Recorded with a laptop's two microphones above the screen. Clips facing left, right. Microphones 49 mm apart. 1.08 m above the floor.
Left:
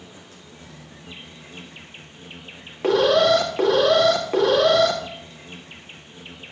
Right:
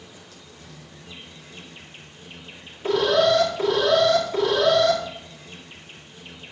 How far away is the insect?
About 1.8 m.